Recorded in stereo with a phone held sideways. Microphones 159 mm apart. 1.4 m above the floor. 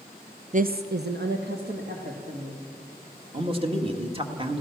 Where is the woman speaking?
45° right (ahead or behind), 0.5 m; by 2.6 s 75° right (ahead or behind), 3.5 m.